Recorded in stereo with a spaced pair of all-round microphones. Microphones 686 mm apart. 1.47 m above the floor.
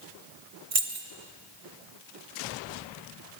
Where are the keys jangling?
55° right (ahead or behind), 1.3 m.